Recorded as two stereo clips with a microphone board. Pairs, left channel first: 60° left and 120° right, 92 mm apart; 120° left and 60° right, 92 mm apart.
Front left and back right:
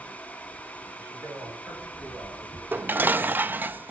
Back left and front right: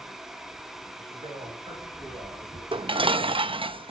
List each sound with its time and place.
1.0 s a man speaking: 50° right, 8 m
2.7 s dishes clattering: 50° right, 0.7 m